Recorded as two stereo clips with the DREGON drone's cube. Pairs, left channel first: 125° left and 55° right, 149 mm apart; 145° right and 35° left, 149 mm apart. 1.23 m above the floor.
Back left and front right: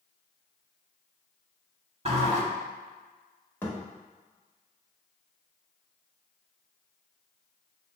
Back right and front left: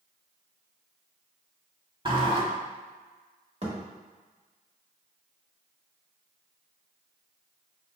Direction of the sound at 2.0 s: 15° right.